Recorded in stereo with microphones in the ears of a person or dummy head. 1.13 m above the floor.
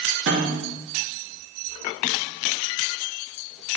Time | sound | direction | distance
0.3 | a snare drum | 50° right (ahead or behind) | 2.5 m